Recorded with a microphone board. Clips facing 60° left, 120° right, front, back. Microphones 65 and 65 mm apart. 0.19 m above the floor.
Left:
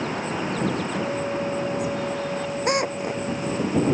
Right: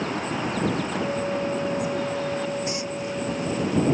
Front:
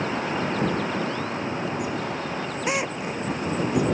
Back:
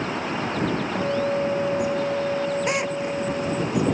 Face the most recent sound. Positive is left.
turn(degrees=90)